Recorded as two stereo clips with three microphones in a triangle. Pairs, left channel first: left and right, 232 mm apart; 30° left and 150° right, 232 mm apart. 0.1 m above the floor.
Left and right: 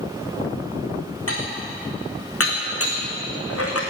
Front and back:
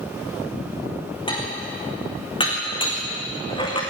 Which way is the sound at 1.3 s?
95° left.